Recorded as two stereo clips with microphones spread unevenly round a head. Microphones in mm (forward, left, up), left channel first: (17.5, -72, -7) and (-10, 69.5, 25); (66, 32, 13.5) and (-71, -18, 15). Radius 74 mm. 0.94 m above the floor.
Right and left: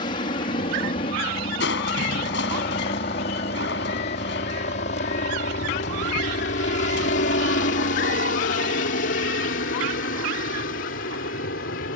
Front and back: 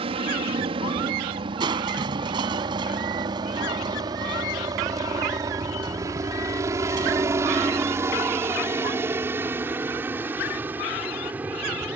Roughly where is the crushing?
Right.